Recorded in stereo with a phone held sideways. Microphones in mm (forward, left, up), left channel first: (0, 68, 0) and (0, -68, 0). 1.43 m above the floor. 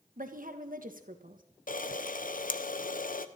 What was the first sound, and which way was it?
A woman speaking, 85° right.